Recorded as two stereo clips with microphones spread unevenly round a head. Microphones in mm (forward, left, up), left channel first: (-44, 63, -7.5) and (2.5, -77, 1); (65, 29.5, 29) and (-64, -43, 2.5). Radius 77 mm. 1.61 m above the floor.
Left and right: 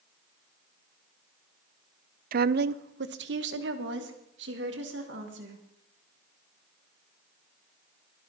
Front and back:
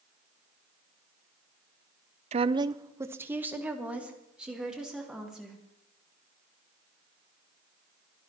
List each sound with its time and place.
2.3 s a woman speaking: 100° right, 0.5 m; by 5.6 s 65° right, 3.5 m